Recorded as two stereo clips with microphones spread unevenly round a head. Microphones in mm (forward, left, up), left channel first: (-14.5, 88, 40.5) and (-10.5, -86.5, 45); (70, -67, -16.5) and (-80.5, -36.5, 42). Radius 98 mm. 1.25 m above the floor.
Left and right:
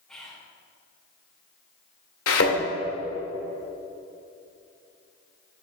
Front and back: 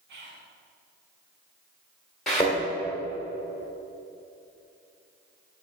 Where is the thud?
85° left, 1.9 m.